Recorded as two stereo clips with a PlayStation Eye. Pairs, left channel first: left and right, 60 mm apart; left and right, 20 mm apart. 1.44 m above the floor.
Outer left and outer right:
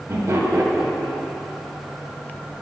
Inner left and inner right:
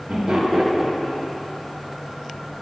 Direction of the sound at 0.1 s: 50° right (ahead or behind).